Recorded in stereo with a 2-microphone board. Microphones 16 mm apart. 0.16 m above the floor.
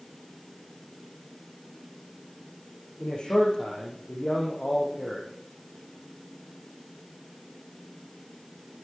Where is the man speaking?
80° left, 8 m.